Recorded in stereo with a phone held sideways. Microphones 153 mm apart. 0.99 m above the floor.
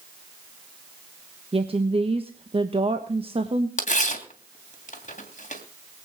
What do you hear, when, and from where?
1.5 s a woman speaking: 40° right (ahead or behind), 1.2 m
3.8 s tearing paper: 55° left (ahead or behind), 2.5 m